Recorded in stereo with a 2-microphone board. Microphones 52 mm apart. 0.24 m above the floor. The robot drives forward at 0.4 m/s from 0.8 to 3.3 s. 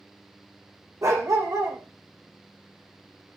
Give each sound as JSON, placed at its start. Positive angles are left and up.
{"t": 1.0, "sound": "a dog barking", "side_deg": -85, "distance_m": 5.0}